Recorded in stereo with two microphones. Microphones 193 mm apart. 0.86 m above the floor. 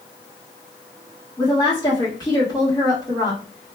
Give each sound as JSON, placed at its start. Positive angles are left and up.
{"t": 1.4, "sound": "a woman speaking", "side_deg": 20, "distance_m": 1.3}